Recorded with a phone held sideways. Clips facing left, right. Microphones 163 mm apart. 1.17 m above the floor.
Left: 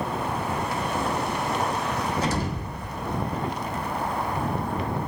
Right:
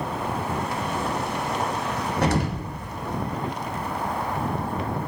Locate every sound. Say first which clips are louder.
2.2 s an explosion: right 3 dB; 65° right (ahead or behind), 1.0 m